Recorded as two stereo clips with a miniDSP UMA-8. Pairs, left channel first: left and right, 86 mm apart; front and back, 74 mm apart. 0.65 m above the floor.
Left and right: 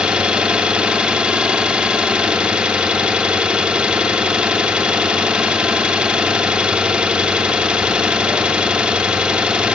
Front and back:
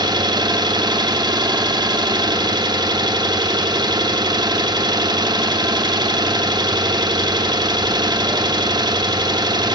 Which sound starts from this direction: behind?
An engine running, at 0.0 s.